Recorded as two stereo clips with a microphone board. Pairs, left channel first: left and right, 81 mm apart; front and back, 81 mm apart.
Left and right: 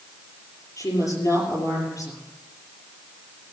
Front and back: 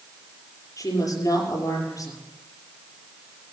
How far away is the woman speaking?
About 6 m.